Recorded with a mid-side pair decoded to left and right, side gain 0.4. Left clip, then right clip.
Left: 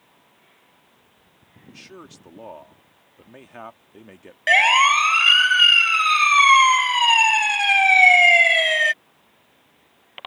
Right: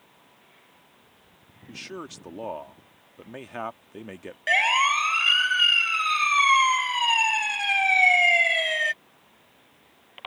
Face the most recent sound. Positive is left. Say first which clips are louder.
# left 6 dB
turn(degrees=50)